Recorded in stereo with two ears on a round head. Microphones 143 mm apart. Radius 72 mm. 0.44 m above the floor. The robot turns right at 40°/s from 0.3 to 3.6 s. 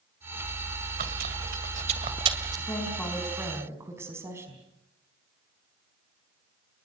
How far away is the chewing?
About 2 m.